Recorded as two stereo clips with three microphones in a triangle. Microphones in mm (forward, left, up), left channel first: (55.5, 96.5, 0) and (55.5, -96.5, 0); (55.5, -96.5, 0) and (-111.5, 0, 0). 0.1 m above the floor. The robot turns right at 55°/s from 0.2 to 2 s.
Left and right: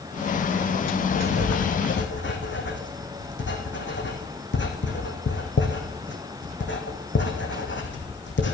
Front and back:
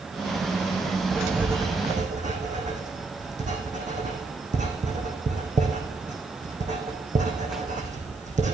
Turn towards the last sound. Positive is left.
turn(degrees=100)